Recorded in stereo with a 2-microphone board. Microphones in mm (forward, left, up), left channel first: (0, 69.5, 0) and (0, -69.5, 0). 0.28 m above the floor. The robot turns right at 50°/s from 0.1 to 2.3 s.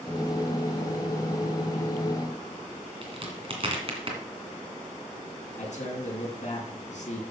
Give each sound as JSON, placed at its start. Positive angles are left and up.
{"t": 3.0, "sound": "a crack", "side_deg": -40, "distance_m": 2.5}
{"t": 5.6, "sound": "a man speaking", "side_deg": 60, "distance_m": 3.0}